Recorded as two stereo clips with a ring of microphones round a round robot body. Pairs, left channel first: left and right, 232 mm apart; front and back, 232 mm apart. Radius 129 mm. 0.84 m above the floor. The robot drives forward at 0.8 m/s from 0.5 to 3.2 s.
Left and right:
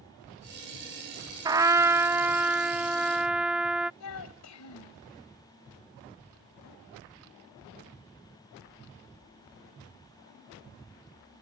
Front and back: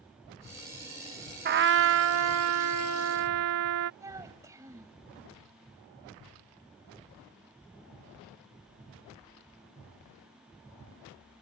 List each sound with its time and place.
1.4 s a trumpet: 155° right; by 3.9 s 175° right
4.0 s a child speaking: 100° left